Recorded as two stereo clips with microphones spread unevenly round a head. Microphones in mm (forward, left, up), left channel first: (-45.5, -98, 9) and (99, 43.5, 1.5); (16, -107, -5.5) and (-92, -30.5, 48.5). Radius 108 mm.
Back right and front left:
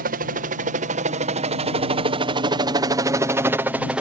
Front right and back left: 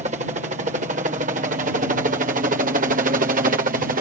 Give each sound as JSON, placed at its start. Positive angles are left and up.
{"t": 0.0, "sound": "a helicopter", "azimuth_deg": 90}